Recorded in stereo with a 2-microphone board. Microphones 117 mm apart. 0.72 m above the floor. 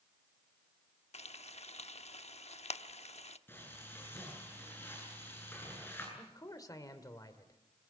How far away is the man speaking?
About 2 m.